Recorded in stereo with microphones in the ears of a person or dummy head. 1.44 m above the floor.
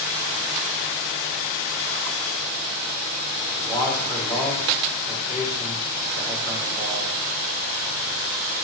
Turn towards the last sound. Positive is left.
turn(degrees=25)  # may be behind; listen again after turning